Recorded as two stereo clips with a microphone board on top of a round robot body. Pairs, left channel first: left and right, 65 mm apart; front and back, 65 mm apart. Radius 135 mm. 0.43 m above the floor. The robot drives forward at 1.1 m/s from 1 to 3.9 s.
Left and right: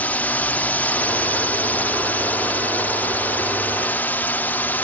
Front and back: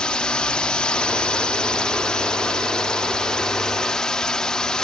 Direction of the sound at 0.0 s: 60° left.